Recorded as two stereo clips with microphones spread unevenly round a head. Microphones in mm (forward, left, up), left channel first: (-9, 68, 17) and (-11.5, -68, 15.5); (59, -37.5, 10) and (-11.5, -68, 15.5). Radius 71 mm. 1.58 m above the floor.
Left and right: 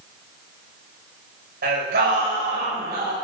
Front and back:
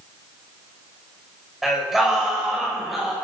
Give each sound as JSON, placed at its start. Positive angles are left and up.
{"t": 1.6, "sound": "singing", "azimuth_deg": -70, "distance_m": 7.0}